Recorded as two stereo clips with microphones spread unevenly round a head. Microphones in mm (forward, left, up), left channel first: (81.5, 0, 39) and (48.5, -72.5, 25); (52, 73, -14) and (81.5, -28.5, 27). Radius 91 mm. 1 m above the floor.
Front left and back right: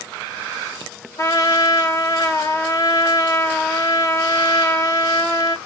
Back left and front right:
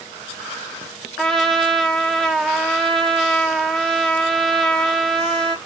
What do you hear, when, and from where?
1.2 s a trumpet: 15° left, 0.9 m